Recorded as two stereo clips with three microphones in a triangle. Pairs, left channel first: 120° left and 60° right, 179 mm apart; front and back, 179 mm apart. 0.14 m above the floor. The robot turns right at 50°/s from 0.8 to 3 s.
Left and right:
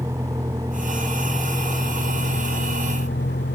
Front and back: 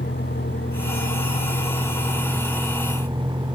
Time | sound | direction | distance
0.0 | a vehicle | 15° left | ?